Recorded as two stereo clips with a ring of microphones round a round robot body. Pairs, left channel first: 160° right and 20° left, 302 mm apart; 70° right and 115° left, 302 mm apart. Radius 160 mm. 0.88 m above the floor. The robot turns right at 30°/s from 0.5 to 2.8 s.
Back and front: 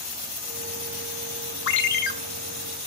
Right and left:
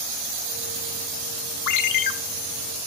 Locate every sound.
1.7 s a ringtone: 105° right, 1.0 m; by 2.1 s 90° right, 1.0 m